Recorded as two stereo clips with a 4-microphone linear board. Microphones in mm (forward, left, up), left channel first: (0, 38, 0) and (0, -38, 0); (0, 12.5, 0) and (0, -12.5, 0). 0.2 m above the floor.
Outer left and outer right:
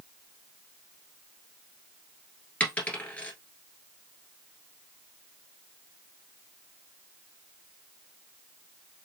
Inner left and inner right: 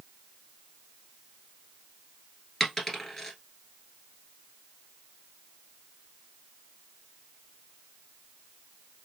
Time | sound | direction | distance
2.6 | a dropped coin | 20° left (ahead or behind) | 1.4 m